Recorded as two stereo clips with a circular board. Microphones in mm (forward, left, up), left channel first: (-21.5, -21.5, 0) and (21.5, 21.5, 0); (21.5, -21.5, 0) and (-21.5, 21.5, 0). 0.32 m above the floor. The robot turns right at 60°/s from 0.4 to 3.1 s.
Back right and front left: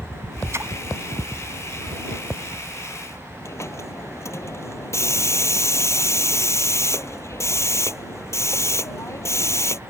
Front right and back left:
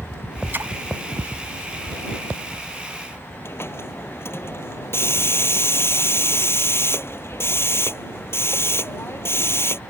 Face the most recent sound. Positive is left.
turn(degrees=-95)